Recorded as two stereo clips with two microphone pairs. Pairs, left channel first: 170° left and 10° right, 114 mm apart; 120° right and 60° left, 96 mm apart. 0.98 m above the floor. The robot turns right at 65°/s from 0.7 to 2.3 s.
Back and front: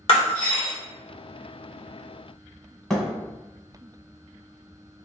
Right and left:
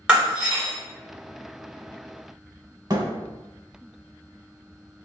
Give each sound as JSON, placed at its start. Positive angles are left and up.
{"t": 0.1, "sound": "breaking glass", "azimuth_deg": 140, "distance_m": 1.2}
{"t": 2.9, "sound": "a thud", "azimuth_deg": 85, "distance_m": 1.0}